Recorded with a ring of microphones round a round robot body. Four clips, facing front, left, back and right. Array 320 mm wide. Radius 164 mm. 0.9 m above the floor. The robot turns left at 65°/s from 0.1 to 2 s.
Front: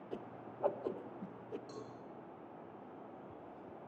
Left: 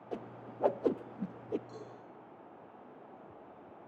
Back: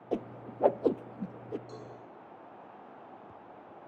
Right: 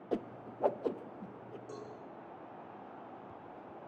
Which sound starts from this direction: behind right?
A whoosh, at 0.1 s.